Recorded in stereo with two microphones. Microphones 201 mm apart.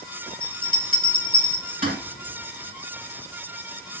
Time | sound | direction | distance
0.4 | a bell | 45° right (ahead or behind) | 2.5 m